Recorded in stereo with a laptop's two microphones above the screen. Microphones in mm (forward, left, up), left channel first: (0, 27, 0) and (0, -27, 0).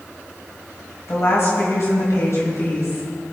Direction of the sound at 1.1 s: 60° left (ahead or behind).